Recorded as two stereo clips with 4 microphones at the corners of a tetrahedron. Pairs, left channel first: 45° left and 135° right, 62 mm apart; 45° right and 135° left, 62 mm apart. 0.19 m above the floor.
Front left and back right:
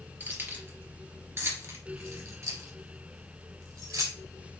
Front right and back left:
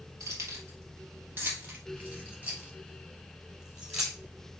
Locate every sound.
0.2 s keys jangling: 170° left, 2.5 m; by 4.2 s 140° right, 3 m